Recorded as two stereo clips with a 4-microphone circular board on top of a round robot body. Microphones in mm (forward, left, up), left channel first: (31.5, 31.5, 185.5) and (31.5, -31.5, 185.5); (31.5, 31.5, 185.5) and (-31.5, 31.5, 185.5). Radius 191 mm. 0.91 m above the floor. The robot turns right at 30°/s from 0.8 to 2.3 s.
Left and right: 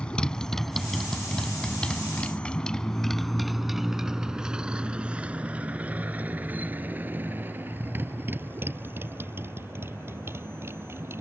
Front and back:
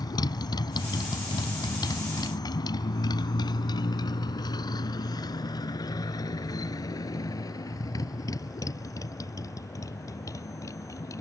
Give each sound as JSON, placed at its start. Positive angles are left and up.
{"t": 0.0, "sound": "a motorcycle", "azimuth_deg": 15}